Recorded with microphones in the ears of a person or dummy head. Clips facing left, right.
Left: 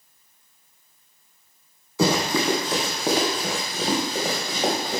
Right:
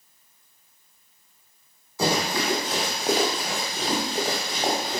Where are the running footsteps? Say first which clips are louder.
Left 3 dB; 60° left (ahead or behind), 2 m; by 5.0 s 65° left (ahead or behind), 4 m.